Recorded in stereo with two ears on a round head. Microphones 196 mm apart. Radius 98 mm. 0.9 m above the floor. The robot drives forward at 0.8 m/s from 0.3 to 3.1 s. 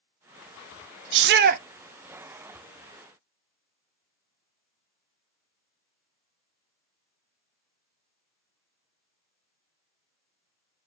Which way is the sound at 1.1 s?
60° right (ahead or behind).